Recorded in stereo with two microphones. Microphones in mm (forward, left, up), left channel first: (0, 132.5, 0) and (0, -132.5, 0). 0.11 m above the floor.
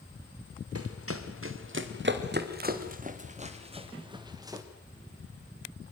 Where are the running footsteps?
60° right (ahead or behind), 3 m; by 4.6 s 10° right (ahead or behind), 3.5 m.